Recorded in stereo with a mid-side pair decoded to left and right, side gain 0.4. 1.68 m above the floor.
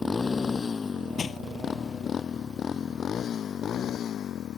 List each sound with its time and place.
0.0 s a motorcycle: 35° left; by 4.6 s 70° left
1.2 s crushing: 50° left